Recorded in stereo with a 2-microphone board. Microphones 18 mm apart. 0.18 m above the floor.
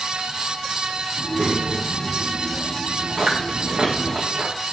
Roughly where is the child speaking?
Right.